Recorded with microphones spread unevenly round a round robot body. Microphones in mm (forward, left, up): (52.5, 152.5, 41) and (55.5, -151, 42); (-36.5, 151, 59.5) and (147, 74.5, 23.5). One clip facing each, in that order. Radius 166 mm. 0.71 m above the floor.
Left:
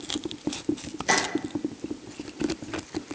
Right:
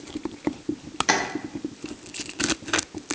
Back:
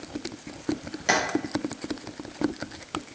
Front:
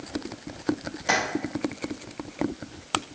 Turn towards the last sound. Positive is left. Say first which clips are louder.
# right 1 dB, back 1 dB
turn(degrees=-125)